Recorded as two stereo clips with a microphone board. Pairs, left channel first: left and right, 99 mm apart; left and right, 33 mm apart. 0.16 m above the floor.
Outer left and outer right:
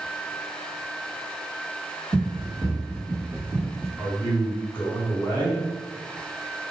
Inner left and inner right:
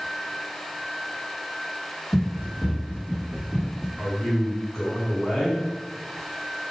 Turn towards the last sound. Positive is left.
turn(degrees=20)  # may be behind; listen again after turning